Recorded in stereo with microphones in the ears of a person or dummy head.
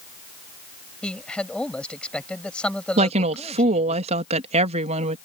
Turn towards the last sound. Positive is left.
turn(degrees=-45)  # may be behind; listen again after turning